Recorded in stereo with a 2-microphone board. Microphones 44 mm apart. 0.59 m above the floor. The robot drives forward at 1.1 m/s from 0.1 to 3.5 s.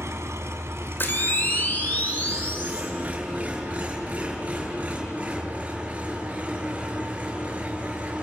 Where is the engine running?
85° right, 1.9 m; by 8.2 s 30° right (ahead or behind), 4 m.